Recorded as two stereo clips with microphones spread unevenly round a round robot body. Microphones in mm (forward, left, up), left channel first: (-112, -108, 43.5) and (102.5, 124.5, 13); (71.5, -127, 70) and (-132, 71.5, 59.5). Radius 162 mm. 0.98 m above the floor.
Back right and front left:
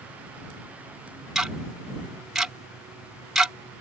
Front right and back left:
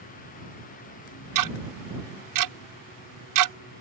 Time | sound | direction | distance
1.4 | ticking | 135° left | ?